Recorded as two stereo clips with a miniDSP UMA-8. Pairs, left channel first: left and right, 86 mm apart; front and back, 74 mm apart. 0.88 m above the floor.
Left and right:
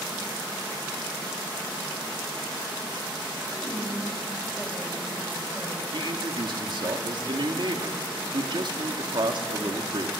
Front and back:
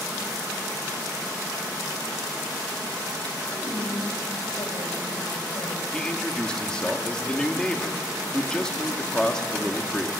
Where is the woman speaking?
10° left, 5 m.